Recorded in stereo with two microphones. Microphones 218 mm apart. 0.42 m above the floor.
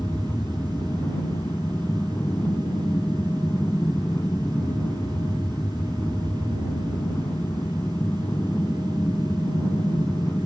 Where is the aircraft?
10° left (ahead or behind).